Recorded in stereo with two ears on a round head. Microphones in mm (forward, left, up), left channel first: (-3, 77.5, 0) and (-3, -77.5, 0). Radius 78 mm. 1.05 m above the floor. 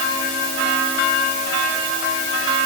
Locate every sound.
Only background noise.